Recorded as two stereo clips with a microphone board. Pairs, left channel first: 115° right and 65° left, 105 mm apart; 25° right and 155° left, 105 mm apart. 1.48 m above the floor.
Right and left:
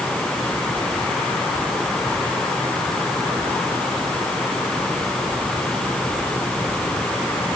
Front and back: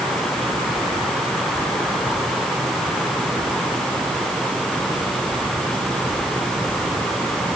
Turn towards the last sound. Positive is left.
No sound to turn to.